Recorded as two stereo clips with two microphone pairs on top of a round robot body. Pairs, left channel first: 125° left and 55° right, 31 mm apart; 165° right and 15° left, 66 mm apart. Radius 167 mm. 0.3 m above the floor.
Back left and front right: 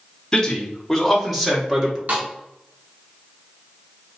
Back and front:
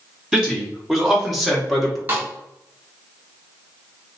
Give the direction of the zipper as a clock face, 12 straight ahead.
I don't hear a zipper.